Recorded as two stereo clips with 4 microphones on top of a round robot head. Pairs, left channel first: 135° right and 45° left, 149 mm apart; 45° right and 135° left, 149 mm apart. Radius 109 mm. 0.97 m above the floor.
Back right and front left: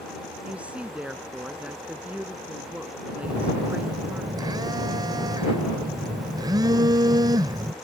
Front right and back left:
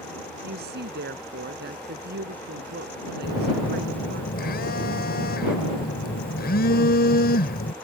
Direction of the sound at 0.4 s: 130° left.